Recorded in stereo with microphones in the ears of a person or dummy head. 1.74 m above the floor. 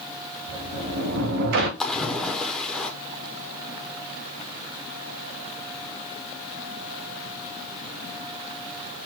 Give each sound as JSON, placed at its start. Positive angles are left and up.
{"t": 0.5, "sound": "a sliding door", "side_deg": -60, "distance_m": 1.0}
{"t": 1.8, "sound": "a splash", "side_deg": 5, "distance_m": 0.9}